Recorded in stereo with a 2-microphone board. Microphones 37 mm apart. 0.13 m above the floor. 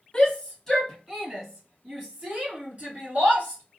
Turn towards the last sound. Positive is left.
turn(degrees=-45)  # may be behind; listen again after turning